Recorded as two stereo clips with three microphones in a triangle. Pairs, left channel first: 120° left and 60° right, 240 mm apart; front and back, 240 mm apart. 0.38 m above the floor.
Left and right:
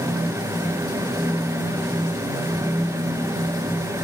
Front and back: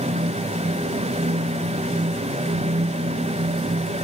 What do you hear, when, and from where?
Only background noise.